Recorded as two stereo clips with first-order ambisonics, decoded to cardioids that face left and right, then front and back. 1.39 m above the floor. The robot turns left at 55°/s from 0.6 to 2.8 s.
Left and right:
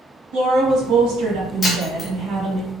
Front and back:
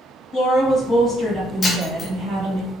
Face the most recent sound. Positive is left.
turn(degrees=-25)